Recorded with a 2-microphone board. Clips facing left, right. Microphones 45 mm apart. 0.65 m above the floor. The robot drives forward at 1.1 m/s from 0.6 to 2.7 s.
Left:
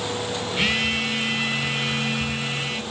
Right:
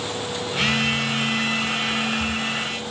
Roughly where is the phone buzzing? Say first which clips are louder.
Right 1 dB; centre.